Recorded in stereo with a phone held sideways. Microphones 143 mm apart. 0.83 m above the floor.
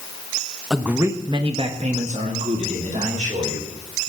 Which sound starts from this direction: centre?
A man speaking, at 0.7 s.